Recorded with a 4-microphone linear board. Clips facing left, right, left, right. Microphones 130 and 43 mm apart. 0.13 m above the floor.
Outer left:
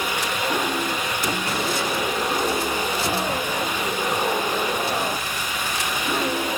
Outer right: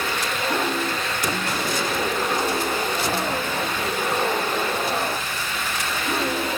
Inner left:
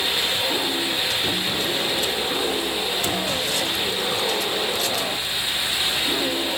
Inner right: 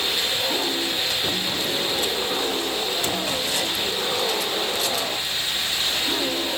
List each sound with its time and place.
Only background noise.